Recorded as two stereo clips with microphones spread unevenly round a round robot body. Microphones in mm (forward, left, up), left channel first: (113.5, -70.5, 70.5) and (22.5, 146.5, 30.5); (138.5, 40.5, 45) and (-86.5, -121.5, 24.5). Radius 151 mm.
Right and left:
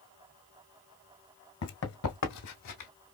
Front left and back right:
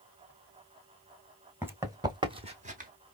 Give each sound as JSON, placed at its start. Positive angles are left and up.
{"t": 1.6, "sound": "running footsteps", "azimuth_deg": -60, "distance_m": 1.6}